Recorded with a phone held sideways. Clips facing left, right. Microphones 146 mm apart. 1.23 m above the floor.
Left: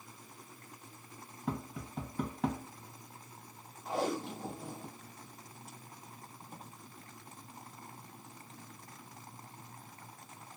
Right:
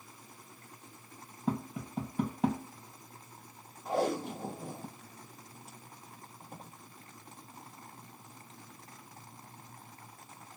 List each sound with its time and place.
1.5 s tapping: 20° right (ahead or behind), 2 m
3.9 s tape being pulled: 55° right (ahead or behind), 1.9 m